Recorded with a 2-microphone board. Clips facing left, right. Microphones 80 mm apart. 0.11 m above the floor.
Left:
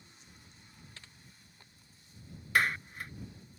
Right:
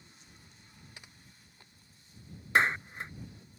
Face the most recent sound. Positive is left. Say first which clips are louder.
# right 3 dB
turn(degrees=-25)  # may be behind; listen again after turning